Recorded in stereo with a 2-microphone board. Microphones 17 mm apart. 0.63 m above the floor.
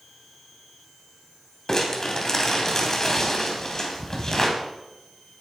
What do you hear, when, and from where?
1.7 s crumpling: 30° left (ahead or behind), 2.5 m